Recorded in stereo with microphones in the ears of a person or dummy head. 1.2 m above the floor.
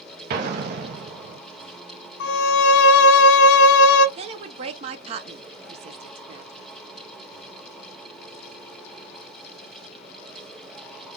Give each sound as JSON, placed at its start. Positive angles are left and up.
{"t": 0.3, "sound": "an explosion", "side_deg": -55, "distance_m": 0.8}
{"t": 2.2, "sound": "a violin", "side_deg": 60, "distance_m": 0.5}
{"t": 4.2, "sound": "a woman speaking", "side_deg": -30, "distance_m": 0.6}